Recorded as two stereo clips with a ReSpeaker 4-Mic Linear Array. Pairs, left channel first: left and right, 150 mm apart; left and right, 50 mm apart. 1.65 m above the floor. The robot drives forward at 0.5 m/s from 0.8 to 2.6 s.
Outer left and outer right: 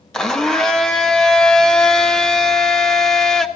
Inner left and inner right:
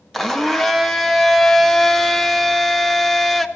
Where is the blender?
5° left (ahead or behind), 0.9 m.